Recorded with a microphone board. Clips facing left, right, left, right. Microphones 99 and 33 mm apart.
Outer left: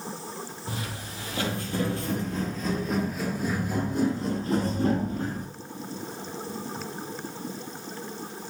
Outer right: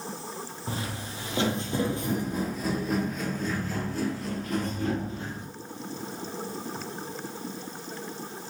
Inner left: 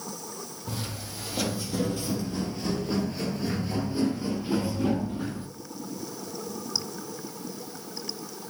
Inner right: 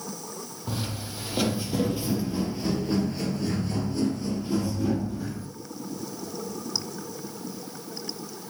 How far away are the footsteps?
About 2 m.